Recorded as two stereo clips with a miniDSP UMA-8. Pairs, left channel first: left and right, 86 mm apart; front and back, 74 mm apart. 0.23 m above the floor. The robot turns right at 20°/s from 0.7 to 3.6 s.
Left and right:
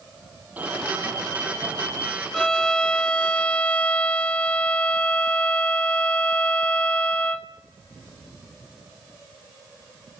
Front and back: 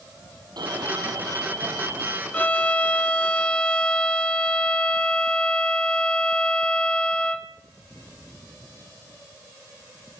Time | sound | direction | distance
0.6 | an alarm | 160° right | 7 m
2.3 | a violin | 20° left | 0.7 m